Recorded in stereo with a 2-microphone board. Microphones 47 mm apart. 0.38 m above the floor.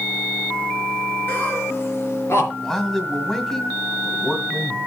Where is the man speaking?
5° left (ahead or behind), 2 m.